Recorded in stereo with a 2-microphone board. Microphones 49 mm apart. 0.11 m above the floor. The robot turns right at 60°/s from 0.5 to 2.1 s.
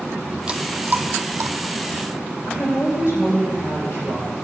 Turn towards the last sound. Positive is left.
turn(degrees=70)  # may be behind; listen again after turning